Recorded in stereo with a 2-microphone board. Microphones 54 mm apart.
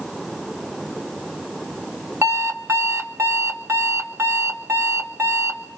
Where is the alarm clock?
55° right (ahead or behind), 1.2 m.